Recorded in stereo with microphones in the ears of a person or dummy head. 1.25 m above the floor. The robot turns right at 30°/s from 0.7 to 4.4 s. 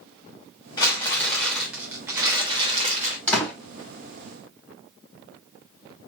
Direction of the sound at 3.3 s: 10° left (ahead or behind).